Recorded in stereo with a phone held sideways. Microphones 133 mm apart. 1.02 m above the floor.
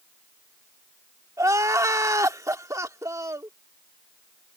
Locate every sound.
1.4 s crying: 25° right (ahead or behind)